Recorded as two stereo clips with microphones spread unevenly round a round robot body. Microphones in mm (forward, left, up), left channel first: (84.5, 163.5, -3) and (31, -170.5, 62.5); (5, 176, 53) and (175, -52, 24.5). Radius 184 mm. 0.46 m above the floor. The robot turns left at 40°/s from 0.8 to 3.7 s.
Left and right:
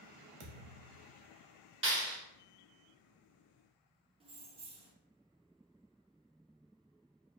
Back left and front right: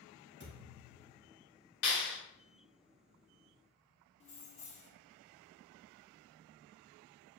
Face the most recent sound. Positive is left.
turn(degrees=180)